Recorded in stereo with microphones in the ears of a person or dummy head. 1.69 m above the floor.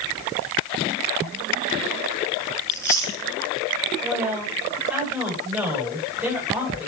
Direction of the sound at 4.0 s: 5° right (ahead or behind).